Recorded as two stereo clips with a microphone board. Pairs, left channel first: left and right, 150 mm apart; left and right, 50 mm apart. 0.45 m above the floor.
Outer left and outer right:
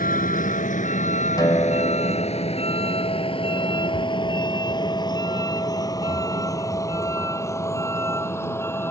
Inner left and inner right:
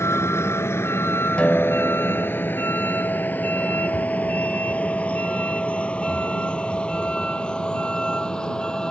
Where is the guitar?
25° left (ahead or behind).